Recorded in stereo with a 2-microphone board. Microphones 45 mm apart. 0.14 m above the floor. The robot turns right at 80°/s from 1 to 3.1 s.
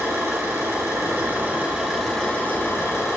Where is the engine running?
80° right, 3.5 m; by 3.2 s 90° left, 3.5 m.